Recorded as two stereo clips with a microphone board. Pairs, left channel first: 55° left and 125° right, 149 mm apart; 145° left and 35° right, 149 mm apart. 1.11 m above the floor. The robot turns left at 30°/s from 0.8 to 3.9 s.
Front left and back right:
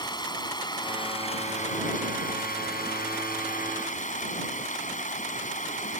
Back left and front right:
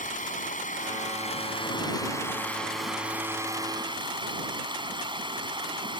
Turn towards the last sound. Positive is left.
turn(degrees=25)